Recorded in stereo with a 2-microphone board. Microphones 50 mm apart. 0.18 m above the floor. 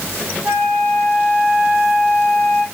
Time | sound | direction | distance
0.4 | a flute | 50° right (ahead or behind) | 8 m